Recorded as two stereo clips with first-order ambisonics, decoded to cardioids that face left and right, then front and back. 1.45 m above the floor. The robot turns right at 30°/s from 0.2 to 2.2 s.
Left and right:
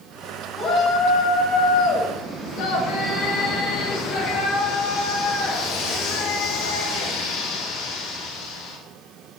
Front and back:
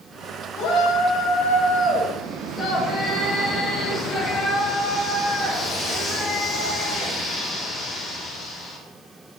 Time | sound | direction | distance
0.6 | a shout | 25° left | 1.7 m